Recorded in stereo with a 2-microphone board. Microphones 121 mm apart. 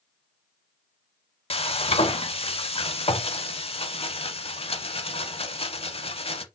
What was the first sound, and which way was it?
Frying, 55° left (ahead or behind).